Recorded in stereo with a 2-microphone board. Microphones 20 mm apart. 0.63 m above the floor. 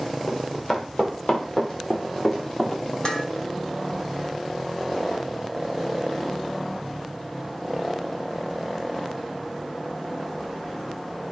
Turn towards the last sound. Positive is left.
turn(degrees=35)  # may be behind; listen again after turning